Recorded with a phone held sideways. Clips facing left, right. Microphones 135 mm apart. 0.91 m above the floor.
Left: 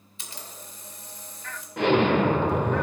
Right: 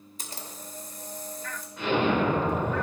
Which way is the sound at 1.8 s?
70° left (ahead or behind).